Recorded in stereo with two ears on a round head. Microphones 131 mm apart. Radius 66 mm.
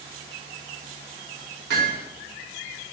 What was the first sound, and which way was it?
Hammering, 85° right.